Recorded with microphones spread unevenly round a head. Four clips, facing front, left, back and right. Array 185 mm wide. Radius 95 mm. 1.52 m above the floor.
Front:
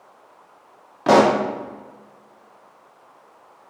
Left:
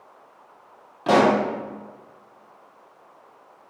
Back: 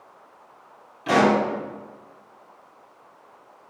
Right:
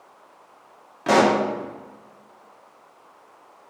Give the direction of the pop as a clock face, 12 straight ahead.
12 o'clock.